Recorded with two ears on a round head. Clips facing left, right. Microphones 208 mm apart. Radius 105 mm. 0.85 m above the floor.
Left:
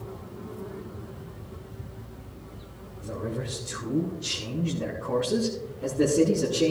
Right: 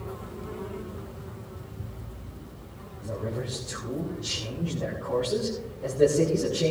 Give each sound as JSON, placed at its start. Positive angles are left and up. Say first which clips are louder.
{"t": 3.0, "sound": "a man speaking", "louder": "even", "side_deg": 15, "distance_m": 7.5}